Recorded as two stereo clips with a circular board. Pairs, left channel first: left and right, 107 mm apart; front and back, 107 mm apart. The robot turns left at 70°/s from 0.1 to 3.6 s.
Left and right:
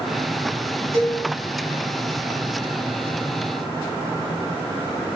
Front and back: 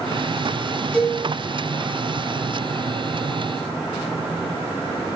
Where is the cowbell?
80° right, 1.5 m; by 1.2 s 100° right, 1.5 m.